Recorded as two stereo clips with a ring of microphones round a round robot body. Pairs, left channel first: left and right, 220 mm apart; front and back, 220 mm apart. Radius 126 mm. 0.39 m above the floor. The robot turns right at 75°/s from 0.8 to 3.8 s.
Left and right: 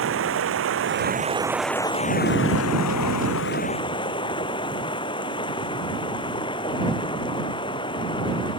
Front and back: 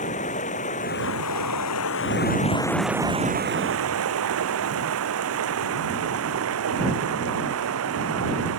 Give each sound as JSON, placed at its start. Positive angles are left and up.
{"t": 0.0, "sound": "running water", "azimuth_deg": -65}